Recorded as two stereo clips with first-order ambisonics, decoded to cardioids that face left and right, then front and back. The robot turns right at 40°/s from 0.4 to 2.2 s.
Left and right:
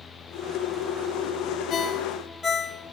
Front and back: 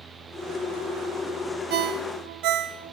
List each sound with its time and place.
1.7 s a ringtone: 145° left, 0.5 m; by 3.0 s 165° left, 0.5 m